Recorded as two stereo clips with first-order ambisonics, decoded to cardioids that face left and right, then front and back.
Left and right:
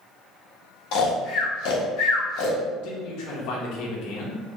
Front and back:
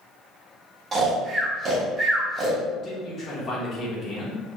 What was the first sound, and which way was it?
Snoring, 115° left.